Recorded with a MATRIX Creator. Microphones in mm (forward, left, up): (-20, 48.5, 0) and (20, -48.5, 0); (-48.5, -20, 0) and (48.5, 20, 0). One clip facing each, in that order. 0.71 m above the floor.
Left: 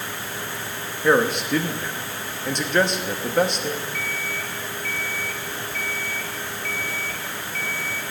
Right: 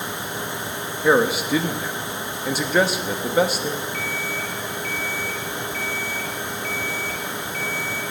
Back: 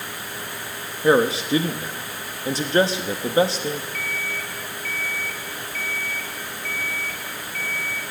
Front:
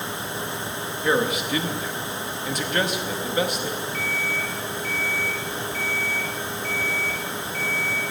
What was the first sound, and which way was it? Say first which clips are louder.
A man speaking: right 1 dB, back 5 dB; 145° right.